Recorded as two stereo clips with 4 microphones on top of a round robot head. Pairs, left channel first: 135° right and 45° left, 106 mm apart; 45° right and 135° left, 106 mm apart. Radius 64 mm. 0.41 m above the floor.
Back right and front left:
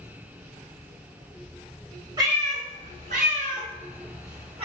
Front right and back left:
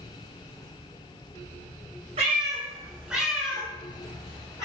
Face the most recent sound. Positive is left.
turn(degrees=15)